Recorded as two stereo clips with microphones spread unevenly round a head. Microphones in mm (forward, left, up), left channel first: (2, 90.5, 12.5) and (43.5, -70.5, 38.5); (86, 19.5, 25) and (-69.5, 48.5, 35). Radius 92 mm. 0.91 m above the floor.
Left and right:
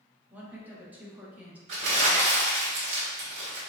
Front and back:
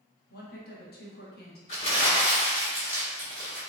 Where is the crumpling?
65° right, 1.7 m.